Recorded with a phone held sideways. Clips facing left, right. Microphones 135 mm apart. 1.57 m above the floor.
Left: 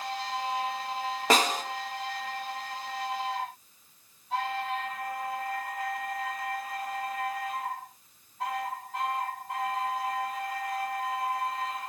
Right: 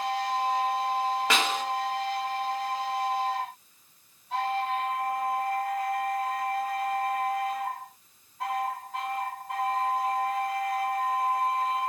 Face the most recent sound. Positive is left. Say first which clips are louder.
# left 2 dB
turn(degrees=40)  # may be behind; listen again after turning